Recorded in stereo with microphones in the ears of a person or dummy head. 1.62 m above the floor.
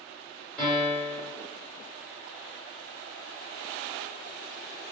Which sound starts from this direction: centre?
A piano, at 0.6 s.